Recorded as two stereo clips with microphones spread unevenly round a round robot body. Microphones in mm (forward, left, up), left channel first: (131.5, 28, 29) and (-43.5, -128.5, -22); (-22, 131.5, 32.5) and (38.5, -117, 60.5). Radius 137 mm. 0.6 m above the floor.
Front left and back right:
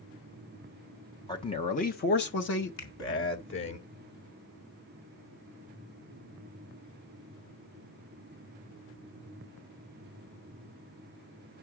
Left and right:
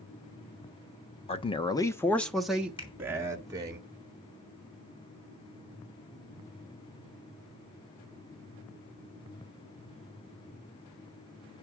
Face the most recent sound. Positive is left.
turn(degrees=35)